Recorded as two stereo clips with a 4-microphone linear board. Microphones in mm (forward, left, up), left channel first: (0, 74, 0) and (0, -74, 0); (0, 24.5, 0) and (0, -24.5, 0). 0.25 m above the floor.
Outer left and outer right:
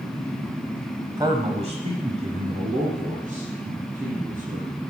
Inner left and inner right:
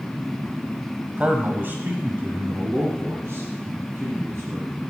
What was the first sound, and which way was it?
A man speaking, 25° right (ahead or behind).